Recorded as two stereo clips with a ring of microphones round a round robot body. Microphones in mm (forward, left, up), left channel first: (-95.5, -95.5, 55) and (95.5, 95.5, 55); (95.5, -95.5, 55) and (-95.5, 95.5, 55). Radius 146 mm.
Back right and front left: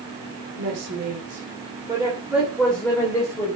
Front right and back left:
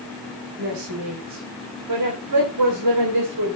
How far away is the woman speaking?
About 2.5 m.